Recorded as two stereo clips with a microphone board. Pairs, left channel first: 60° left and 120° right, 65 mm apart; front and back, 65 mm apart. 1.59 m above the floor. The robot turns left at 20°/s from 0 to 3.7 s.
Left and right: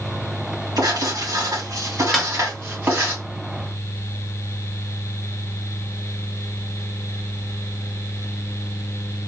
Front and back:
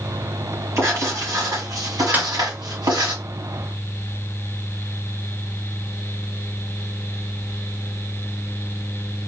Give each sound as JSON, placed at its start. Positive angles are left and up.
{"t": 0.8, "sound": "writing", "azimuth_deg": -130, "distance_m": 2.5}
{"t": 2.1, "sound": "a snare drum", "azimuth_deg": 150, "distance_m": 1.0}